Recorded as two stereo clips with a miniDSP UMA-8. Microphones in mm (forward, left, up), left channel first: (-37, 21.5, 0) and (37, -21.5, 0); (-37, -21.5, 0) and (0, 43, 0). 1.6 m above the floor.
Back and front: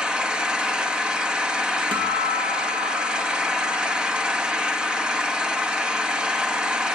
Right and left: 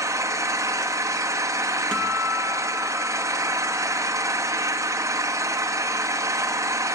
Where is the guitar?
40° right, 2.5 m.